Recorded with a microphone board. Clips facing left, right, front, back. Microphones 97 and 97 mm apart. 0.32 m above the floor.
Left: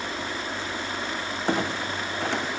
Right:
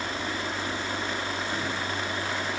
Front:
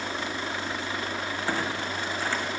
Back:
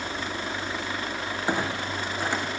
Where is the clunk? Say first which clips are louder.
Left 4 dB, back 3 dB; 105° left, 3.5 m.